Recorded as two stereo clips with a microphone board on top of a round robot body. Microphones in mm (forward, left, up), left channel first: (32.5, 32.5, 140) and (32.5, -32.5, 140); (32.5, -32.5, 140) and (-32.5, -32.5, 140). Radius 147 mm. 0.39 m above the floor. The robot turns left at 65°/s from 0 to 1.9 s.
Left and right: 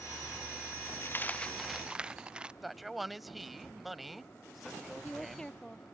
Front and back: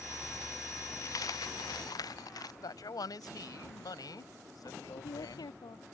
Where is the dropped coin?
40° left; by 2.5 s 15° right.